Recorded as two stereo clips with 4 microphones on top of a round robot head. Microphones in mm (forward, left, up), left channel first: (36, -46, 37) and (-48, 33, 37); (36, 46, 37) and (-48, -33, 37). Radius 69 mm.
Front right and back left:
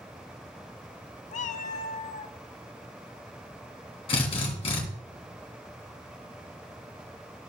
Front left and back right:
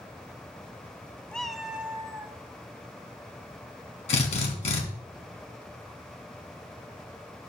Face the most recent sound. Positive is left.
turn(degrees=5)